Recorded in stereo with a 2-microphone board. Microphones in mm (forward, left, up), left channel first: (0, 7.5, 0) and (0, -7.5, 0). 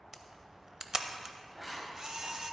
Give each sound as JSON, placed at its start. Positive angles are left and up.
{"t": 0.1, "sound": "a camera shutter", "side_deg": -40, "distance_m": 0.8}
{"t": 1.5, "sound": "writing", "side_deg": -10, "distance_m": 1.9}